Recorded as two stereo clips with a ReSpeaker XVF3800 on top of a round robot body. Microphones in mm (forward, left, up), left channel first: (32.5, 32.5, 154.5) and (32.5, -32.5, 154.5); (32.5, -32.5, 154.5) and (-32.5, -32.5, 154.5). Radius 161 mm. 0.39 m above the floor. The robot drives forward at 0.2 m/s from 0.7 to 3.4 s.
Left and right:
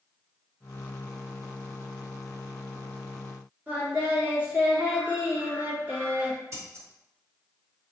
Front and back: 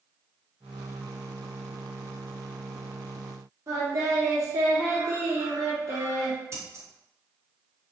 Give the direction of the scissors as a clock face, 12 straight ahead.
4 o'clock.